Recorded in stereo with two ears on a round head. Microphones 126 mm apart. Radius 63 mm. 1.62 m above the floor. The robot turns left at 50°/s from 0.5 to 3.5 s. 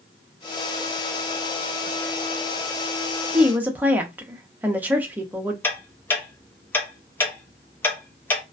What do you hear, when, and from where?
3.3 s a woman speaking: 5° right (ahead or behind), 0.6 m; by 5.5 s 10° right (ahead or behind), 0.6 m
5.6 s ticking: 15° left (ahead or behind), 0.6 m